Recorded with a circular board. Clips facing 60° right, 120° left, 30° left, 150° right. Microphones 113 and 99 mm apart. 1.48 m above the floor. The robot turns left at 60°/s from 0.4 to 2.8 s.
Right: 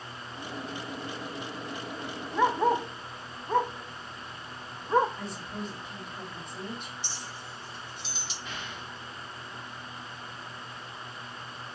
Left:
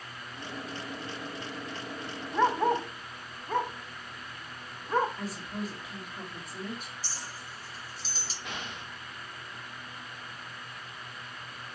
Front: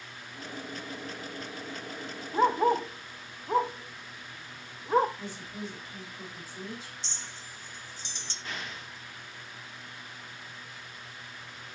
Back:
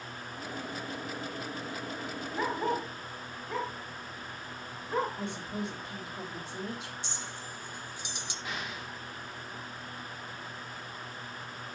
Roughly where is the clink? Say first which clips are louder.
Right 2 dB, back 4 dB; behind left.